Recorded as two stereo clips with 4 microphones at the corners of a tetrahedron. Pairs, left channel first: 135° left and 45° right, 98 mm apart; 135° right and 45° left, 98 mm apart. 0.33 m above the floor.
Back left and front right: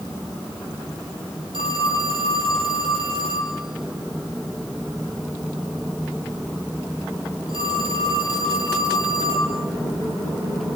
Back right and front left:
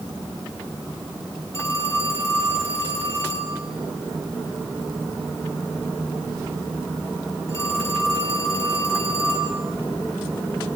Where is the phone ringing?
75° right, 6 m.